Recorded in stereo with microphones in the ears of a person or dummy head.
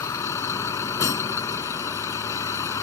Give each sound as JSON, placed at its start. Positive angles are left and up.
{"t": 0.0, "sound": "a vehicle", "side_deg": 20}